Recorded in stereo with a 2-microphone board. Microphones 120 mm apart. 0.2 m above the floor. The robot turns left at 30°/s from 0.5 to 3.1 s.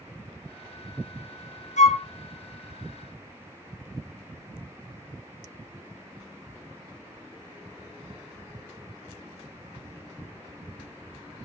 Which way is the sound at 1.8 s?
80° left.